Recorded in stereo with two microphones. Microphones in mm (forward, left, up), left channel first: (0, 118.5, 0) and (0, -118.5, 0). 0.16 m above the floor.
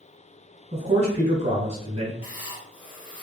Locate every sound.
0.7 s a man speaking: 30° right (ahead or behind), 1.4 m; by 2.1 s 25° right (ahead or behind), 1.3 m
2.2 s writing: 70° left (ahead or behind), 1.2 m